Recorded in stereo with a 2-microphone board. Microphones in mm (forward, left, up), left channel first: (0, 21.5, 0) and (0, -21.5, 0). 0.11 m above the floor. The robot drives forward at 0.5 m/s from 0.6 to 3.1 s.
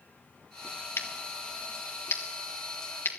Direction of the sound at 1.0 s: 70° left (ahead or behind).